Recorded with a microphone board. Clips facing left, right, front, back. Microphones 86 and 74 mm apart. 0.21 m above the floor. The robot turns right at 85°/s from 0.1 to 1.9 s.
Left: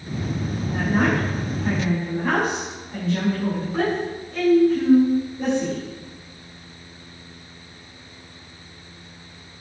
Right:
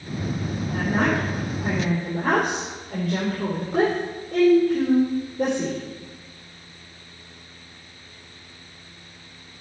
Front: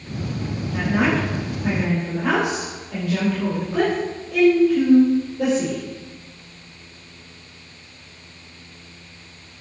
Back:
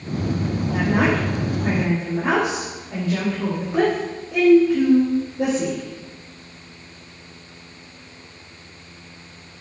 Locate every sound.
0.7 s a woman speaking: 140° left, 4.5 m; by 5.8 s 115° right, 4.5 m